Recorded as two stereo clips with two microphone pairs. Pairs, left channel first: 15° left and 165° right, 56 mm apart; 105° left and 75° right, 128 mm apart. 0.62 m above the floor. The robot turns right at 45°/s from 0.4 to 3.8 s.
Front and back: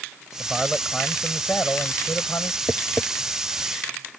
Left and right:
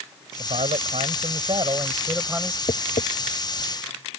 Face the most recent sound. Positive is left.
turn(degrees=145)